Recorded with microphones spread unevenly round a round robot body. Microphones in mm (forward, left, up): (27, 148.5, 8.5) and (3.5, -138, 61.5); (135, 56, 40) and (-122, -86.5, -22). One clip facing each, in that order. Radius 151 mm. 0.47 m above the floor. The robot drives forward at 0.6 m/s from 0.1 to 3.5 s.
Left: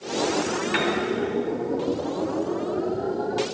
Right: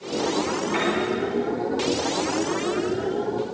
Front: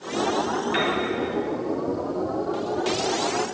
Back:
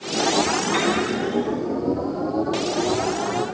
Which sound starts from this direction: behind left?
A piano, at 0.7 s.